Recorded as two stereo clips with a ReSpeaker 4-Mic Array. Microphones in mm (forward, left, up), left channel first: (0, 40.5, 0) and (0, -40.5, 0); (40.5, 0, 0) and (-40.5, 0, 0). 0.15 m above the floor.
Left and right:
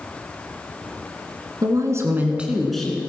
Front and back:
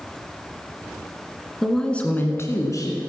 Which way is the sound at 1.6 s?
85° right.